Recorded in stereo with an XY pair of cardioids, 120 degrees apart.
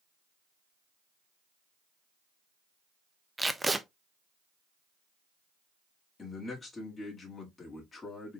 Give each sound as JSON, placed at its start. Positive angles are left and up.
{"t": 3.4, "sound": "tape being pulled", "azimuth_deg": -10, "distance_m": 0.5}
{"t": 6.2, "sound": "a man speaking", "azimuth_deg": 25, "distance_m": 1.9}